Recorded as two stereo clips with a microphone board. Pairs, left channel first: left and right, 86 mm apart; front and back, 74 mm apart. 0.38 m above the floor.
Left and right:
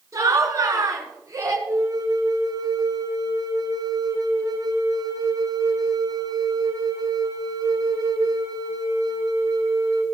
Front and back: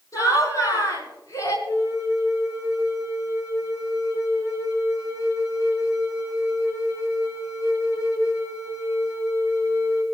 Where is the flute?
40° right, 3.5 m.